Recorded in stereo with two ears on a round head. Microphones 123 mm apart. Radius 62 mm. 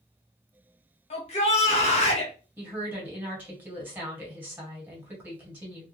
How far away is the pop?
I don't hear a pop.